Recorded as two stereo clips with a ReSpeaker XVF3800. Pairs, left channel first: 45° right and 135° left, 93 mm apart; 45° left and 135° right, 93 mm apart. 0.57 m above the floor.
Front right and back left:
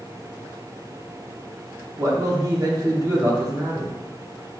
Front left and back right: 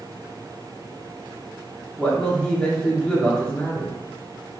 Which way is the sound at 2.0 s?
115° left.